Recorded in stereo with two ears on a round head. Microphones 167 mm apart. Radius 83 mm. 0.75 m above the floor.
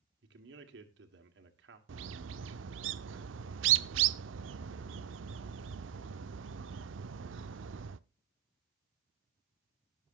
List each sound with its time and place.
0.2 s a man speaking: 70° right (ahead or behind), 1.9 m
1.9 s a bird: 75° right (ahead or behind), 0.6 m